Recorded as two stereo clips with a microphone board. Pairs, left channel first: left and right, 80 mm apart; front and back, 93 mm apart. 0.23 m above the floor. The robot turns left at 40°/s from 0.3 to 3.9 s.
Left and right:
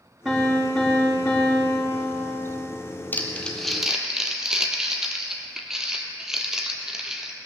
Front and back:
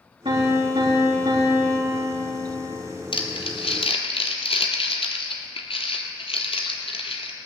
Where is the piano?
175° right, 5 m; by 2.7 s 90° left, 5 m.